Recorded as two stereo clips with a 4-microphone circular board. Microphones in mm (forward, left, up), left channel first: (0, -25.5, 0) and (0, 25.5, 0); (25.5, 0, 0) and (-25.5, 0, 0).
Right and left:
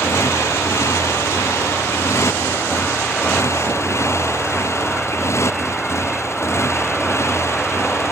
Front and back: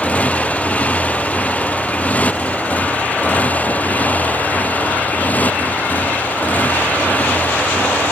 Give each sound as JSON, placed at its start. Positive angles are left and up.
{"t": 0.0, "sound": "a motorcycle", "azimuth_deg": -65}